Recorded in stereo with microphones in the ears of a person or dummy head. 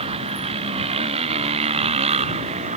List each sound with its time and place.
0.0 s a motorcycle: 30° right (ahead or behind); by 2.8 s 35° right (ahead or behind)